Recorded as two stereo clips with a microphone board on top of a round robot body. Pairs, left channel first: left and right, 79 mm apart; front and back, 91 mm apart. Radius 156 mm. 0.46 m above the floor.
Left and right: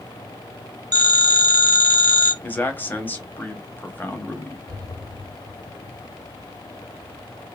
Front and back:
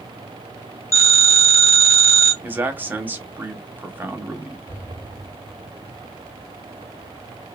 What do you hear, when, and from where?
0.9 s a phone ringing: 60° right, 1.3 m
2.4 s a man speaking: 130° left, 1.0 m
4.7 s an explosion: 65° right, 1.9 m